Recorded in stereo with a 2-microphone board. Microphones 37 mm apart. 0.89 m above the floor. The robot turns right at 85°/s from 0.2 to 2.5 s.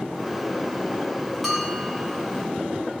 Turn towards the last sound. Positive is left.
turn(degrees=-90)